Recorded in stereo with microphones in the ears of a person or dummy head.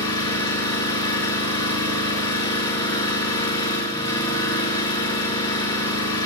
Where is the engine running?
25° left (ahead or behind), 5.5 m.